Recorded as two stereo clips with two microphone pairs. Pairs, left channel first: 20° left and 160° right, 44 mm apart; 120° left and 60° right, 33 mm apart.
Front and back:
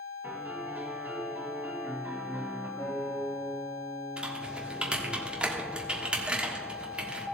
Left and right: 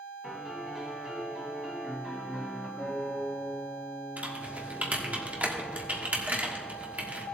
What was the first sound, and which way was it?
A piano, 135° right.